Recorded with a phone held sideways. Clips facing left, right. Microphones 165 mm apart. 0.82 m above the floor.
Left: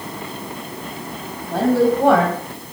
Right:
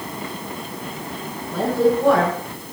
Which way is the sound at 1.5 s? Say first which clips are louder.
Left 2 dB; 80° left.